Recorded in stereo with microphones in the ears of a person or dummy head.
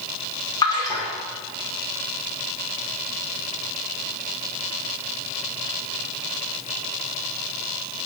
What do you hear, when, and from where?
0.6 s a splash: 15° left (ahead or behind), 1.9 m